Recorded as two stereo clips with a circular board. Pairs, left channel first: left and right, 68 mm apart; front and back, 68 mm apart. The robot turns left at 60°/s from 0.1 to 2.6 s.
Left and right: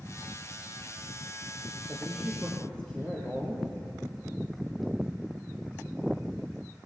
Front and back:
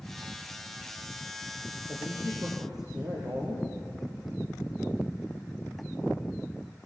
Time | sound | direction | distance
1.9 | a woman speaking | 150° right | 4.5 m